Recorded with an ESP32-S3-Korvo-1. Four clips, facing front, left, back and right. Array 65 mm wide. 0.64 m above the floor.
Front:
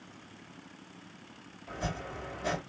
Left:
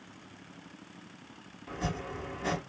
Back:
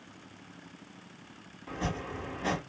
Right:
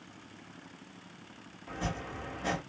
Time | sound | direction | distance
1.7 | chopping | straight behind | 1.3 m